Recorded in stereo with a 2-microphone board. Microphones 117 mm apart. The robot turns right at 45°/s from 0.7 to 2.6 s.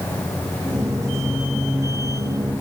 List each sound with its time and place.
Only background noise.